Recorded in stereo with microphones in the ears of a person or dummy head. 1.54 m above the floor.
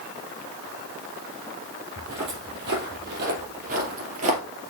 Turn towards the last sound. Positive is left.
turn(degrees=-35)  # may be behind; listen again after turning